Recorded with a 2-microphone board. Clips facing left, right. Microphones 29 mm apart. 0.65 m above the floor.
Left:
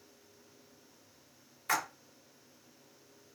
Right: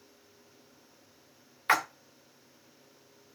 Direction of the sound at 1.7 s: 40° right (ahead or behind).